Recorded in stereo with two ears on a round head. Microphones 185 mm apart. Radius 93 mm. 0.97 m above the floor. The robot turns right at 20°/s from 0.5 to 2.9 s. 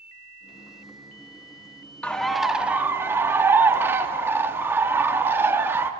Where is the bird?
5° left (ahead or behind), 0.8 m; by 5.9 s 10° right (ahead or behind), 0.8 m.